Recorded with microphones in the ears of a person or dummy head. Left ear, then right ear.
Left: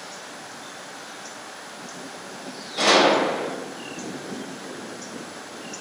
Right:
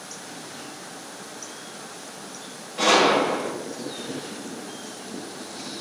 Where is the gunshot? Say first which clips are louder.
Left 1 dB; 65° left (ahead or behind), 1.0 m.